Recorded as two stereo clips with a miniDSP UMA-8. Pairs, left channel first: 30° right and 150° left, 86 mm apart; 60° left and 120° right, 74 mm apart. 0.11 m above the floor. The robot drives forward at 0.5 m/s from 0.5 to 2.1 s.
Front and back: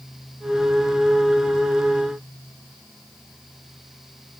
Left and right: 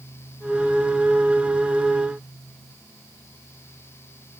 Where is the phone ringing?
I don't hear a phone ringing.